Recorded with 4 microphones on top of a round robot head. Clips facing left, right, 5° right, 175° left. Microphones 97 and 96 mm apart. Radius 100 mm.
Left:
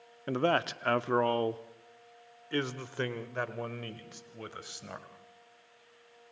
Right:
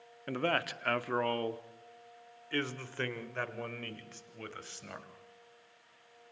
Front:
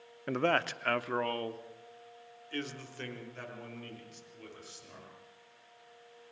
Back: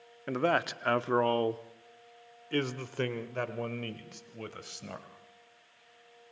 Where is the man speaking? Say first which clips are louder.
Left 5 dB, back 1 dB; 85° left, 0.7 m; by 5.1 s 165° left, 2.5 m.